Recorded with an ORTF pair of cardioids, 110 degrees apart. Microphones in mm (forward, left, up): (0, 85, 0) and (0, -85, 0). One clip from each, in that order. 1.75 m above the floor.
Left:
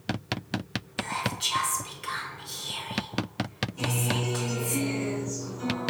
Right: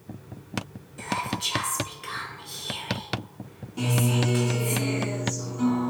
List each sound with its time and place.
1.0 s whispering: 10° left, 1.0 m
3.8 s a guitar: 60° right, 1.7 m